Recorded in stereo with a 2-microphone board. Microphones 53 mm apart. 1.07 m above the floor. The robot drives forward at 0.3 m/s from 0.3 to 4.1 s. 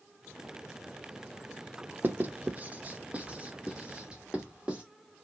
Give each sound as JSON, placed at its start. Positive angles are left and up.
{"t": 2.0, "sound": "writing", "side_deg": -35, "distance_m": 0.7}